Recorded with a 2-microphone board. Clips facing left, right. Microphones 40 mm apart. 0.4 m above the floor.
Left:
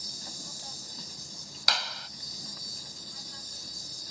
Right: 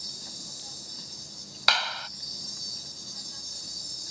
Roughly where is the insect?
Centre.